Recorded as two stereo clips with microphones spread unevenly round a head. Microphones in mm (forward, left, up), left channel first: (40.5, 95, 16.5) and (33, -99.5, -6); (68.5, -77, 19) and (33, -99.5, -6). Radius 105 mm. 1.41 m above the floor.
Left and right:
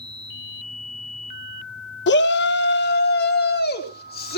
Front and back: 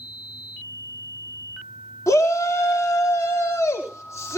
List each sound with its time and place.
2.1 s a shout: 55° left, 1.7 m; by 4.4 s 45° left, 3.5 m